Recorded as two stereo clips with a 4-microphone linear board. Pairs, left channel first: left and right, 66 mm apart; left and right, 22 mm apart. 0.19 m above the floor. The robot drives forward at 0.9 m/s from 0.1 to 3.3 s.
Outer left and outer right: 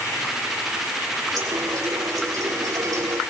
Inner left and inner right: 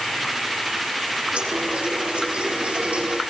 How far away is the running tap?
About 6.5 m.